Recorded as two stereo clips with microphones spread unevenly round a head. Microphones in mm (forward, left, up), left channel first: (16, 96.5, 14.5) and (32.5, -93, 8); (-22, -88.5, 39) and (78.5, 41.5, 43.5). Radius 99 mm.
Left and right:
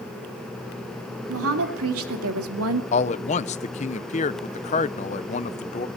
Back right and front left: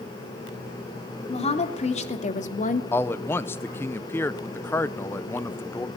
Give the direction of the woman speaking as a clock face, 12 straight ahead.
3 o'clock.